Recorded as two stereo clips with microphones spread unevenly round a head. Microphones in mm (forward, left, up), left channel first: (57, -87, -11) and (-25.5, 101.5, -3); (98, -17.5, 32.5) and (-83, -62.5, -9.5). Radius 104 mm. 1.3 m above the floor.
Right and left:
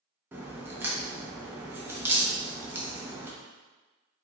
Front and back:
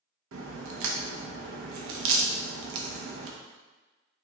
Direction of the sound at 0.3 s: 170° right.